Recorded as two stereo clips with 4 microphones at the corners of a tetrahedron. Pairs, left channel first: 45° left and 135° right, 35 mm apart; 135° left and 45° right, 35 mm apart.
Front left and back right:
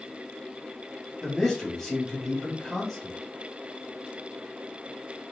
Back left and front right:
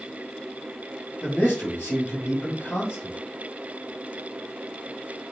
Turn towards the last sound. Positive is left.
turn(degrees=130)